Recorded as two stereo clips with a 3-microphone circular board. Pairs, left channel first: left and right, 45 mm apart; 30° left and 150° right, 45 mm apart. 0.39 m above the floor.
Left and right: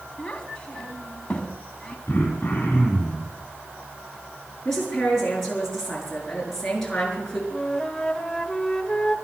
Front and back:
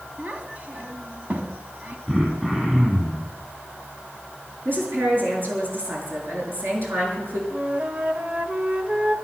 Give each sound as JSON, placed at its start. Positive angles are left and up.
{"t": 0.2, "sound": "a child speaking", "azimuth_deg": 160, "distance_m": 2.0}
{"t": 2.1, "sound": "throat clearing", "azimuth_deg": 135, "distance_m": 5.5}
{"t": 4.7, "sound": "a woman speaking", "azimuth_deg": 170, "distance_m": 6.5}
{"t": 7.5, "sound": "a flute", "azimuth_deg": 160, "distance_m": 1.1}